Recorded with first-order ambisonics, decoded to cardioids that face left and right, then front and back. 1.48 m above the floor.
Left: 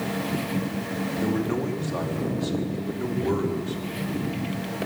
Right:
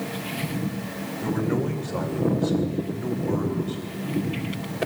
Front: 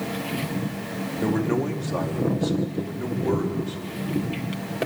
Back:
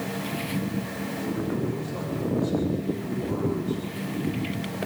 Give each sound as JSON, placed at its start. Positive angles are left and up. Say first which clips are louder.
{"t": 1.2, "sound": "a man speaking", "louder": "right 2 dB, front 6 dB", "azimuth_deg": 20, "distance_m": 3.5}